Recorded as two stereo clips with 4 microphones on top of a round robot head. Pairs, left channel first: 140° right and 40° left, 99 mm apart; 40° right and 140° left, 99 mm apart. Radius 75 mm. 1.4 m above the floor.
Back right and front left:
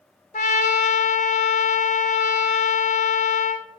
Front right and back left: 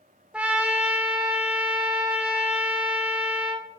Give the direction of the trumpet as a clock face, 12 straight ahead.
5 o'clock.